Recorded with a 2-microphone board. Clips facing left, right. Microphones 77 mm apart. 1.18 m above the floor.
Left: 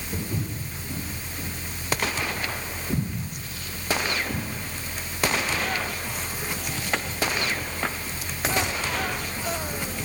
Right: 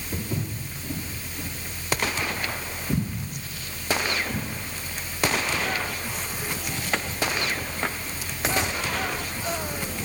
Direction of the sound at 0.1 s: 45° right (ahead or behind).